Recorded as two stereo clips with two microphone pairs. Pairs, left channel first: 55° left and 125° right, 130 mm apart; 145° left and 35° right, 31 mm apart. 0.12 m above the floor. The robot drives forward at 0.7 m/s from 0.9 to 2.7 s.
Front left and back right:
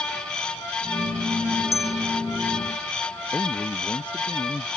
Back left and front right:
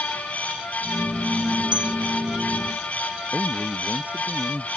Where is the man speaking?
30° right.